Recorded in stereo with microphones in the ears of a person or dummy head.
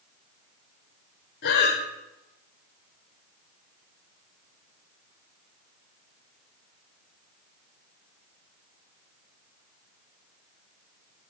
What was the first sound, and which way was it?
Breathing, 65° left (ahead or behind).